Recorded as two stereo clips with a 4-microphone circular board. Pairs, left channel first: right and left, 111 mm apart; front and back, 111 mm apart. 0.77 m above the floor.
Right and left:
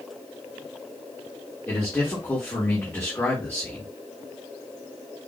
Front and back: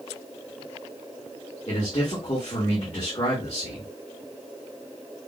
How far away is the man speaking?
About 1.7 m.